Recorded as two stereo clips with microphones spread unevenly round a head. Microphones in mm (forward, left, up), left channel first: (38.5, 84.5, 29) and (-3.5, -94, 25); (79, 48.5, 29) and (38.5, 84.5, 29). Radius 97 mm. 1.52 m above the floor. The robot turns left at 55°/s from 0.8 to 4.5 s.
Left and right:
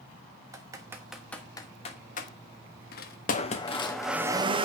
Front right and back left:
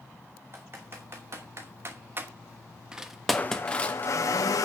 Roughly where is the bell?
No bell in this recording.